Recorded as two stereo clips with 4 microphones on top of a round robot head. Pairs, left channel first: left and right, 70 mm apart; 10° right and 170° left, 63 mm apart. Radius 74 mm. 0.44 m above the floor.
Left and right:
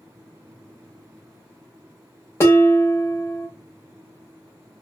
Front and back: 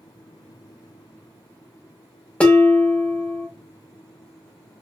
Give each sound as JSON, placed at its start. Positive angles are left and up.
{"t": 2.4, "sound": "dishes clattering", "azimuth_deg": 55, "distance_m": 0.9}